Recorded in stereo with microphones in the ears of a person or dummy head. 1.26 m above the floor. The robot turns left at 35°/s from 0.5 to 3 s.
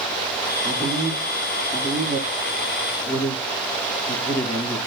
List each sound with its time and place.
0.6 s a man speaking: 5° left (ahead or behind), 1.7 m; by 4.8 s 75° left (ahead or behind), 1.7 m